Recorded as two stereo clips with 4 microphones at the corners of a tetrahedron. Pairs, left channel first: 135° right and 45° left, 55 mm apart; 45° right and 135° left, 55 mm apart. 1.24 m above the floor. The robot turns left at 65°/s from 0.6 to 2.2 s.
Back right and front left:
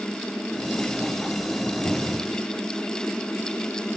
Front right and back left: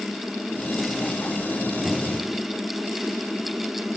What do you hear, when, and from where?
1.9 s a cupboard door: 150° right, 1.4 m; by 2.3 s 175° right, 1.4 m